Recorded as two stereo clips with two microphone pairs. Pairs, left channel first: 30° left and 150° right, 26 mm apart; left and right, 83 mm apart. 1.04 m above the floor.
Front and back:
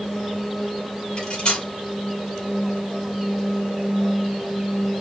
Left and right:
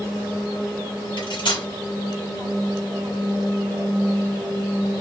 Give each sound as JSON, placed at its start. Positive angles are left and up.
{"t": 1.2, "sound": "cutlery clinking", "azimuth_deg": 80, "distance_m": 2.5}